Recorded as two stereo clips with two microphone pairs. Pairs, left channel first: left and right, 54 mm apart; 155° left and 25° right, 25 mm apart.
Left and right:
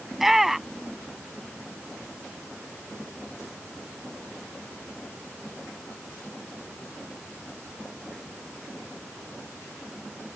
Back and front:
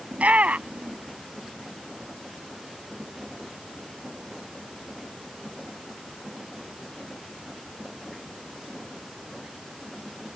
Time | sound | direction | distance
0.1 | a shout | 5° right | ?